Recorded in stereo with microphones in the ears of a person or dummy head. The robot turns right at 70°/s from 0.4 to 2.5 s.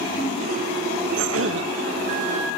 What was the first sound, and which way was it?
A cough, 105° right.